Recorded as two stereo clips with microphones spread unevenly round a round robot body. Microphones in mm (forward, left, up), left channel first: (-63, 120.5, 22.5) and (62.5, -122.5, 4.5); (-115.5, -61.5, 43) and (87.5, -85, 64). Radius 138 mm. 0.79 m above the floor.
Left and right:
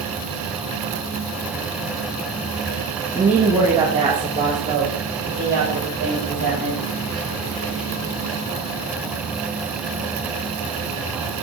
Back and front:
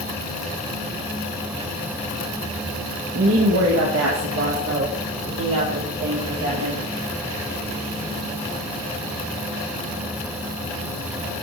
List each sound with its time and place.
3.1 s a woman speaking: 25° left, 1.9 m; by 6.8 s 5° right, 5 m